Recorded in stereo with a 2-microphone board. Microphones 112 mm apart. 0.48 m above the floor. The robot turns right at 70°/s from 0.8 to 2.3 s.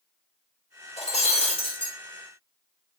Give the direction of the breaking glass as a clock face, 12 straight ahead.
9 o'clock.